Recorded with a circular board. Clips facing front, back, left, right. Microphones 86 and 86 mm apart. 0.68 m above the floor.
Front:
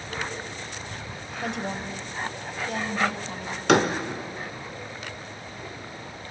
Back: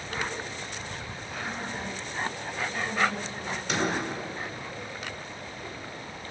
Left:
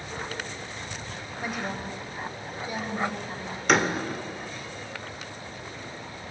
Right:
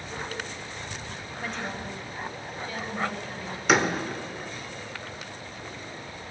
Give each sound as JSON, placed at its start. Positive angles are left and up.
{"t": 1.4, "sound": "a woman speaking", "azimuth_deg": 10, "distance_m": 3.5}
{"t": 3.7, "sound": "a door slam", "azimuth_deg": -5, "distance_m": 1.8}